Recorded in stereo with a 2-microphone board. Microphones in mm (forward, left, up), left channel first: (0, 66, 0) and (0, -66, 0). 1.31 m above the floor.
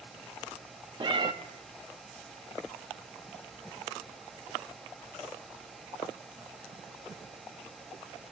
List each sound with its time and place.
1.0 s a cat meowing: 35° right (ahead or behind), 0.8 m